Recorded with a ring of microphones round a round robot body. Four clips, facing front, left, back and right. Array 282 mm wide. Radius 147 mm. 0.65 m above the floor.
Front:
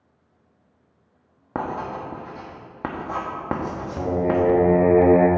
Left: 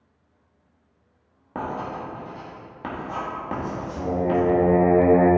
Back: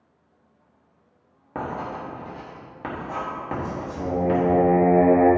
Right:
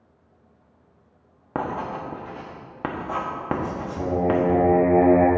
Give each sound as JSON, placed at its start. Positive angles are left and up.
{"t": 1.6, "sound": "writing", "azimuth_deg": -45, "distance_m": 1.2}
{"t": 4.0, "sound": "singing", "azimuth_deg": 10, "distance_m": 1.4}